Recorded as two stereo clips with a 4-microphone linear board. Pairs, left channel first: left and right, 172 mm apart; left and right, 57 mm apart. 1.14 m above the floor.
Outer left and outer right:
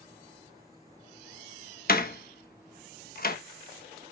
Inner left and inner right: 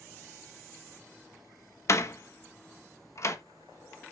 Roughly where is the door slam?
Left.